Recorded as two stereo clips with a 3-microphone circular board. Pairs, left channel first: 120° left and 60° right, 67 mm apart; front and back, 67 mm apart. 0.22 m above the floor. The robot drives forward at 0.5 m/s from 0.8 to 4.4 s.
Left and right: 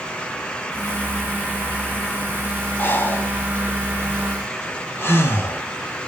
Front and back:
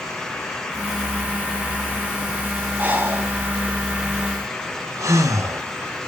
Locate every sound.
2.8 s breathing: 140° left, 1.0 m; by 5.6 s 165° left, 1.6 m